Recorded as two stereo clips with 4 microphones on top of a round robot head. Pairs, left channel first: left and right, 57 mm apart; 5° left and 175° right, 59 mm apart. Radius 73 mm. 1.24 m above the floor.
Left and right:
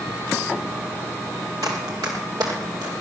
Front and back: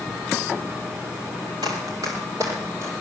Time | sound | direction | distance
1.6 | running footsteps | 135° right | 1.7 m